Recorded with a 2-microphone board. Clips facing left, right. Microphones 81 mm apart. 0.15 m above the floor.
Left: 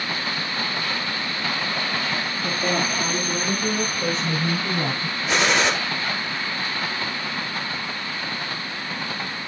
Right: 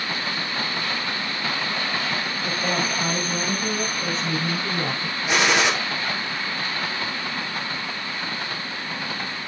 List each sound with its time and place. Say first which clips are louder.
2.4 s a woman speaking: left 2 dB; 25° left (ahead or behind), 2.5 m; by 5.2 s 30° left (ahead or behind), 4.5 m
5.3 s a gunshot: even; 5° right (ahead or behind), 3.5 m